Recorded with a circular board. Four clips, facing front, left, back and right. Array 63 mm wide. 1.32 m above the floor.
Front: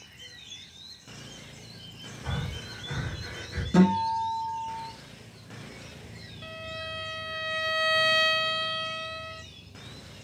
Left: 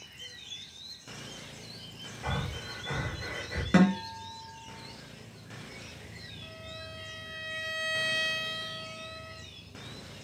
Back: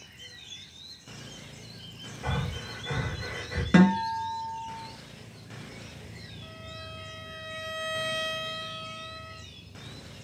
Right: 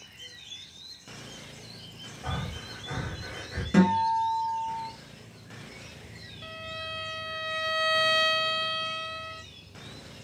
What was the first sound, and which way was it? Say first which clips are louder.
Breathing: left 1 dB, back 3 dB; 145° left.